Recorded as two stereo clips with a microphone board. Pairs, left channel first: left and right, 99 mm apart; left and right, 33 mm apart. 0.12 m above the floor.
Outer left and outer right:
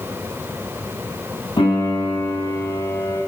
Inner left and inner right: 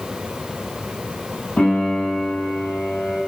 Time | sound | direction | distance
1.6 | a piano | 60° left (ahead or behind) | 5 m